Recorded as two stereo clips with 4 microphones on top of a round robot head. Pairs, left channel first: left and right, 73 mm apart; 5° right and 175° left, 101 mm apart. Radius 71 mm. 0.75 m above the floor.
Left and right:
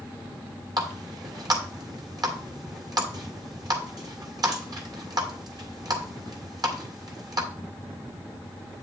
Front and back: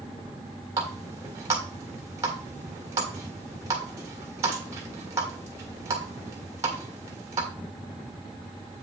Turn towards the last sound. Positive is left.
turn(degrees=-120)